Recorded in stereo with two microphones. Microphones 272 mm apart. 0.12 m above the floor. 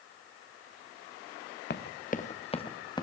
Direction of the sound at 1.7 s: 40° left (ahead or behind).